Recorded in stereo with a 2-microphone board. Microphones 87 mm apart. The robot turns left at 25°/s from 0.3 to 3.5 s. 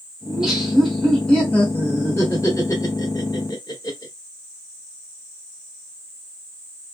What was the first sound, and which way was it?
Laughter, 5° right (ahead or behind).